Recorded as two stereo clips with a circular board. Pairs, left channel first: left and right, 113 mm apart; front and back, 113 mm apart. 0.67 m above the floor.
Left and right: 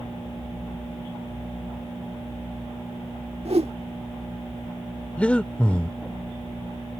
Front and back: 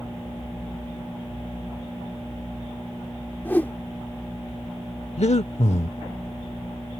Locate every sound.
3.5 s a whoosh: 75° right
5.2 s breathing: 10° left